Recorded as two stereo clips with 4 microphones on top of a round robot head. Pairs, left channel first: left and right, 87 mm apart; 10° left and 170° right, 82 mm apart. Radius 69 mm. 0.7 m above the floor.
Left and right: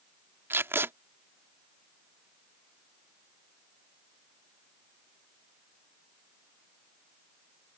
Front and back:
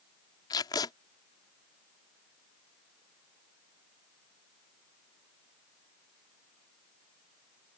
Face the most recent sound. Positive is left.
turn(degrees=-30)